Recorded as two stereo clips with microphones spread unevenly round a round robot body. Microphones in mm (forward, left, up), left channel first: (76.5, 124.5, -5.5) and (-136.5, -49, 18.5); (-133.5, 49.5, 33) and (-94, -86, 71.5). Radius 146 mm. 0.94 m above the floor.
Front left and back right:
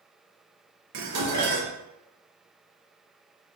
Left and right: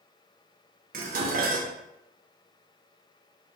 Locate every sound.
0.9 s dishes clattering: 100° right, 0.7 m